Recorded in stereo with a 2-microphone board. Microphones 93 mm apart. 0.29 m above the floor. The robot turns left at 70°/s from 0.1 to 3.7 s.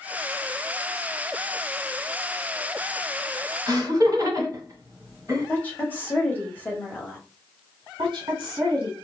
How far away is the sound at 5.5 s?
About 1.0 m.